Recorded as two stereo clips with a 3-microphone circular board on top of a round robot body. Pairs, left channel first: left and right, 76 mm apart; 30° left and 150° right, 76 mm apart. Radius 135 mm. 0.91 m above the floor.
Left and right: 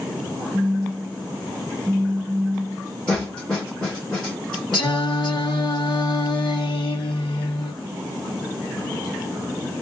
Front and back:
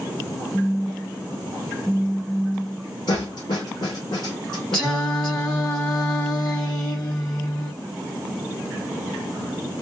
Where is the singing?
110° left, 1.1 m.